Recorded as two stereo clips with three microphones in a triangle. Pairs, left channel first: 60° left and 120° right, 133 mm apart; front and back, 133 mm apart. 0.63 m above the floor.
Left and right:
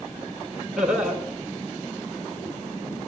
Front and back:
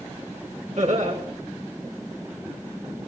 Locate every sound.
0.8 s laughter: 155° left, 5.5 m